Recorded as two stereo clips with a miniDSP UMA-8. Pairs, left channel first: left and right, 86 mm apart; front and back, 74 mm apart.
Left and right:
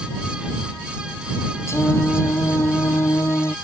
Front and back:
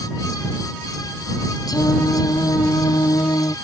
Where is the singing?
30° left.